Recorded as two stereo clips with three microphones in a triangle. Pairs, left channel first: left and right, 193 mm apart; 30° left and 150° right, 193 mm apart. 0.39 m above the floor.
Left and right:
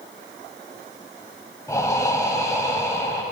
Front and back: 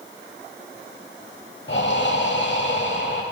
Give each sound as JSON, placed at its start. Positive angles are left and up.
{"t": 1.7, "sound": "breathing", "azimuth_deg": 20, "distance_m": 1.2}